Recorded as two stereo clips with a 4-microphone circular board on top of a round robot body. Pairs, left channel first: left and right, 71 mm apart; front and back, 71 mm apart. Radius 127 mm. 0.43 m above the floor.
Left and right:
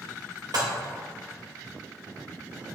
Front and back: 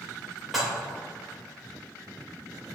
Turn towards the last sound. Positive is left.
turn(degrees=-90)